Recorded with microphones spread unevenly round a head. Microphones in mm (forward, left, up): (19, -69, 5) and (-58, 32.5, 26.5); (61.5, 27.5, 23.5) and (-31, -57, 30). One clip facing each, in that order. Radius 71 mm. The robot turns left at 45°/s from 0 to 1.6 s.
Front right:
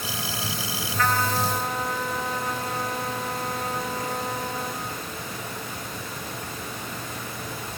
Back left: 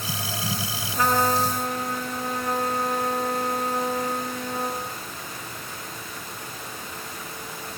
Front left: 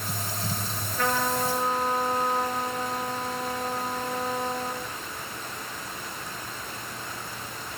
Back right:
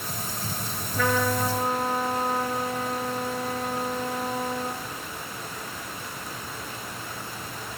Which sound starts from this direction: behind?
A trumpet, at 0.9 s.